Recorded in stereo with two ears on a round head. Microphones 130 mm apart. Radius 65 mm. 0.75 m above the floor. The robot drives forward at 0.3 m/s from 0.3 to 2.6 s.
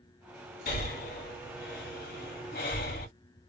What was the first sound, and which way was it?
Breathing, 60° left (ahead or behind).